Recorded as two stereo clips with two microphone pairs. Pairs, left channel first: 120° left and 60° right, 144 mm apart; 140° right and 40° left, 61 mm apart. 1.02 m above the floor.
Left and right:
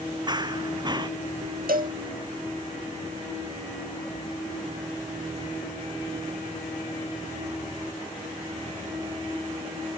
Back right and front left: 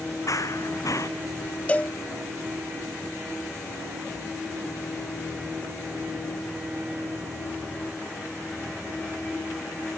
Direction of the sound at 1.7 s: 70° right.